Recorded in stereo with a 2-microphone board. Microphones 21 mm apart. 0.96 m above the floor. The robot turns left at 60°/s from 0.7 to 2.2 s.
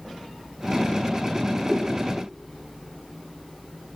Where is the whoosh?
20° right (ahead or behind), 3.5 m; by 1.9 s 30° right (ahead or behind), 3.5 m.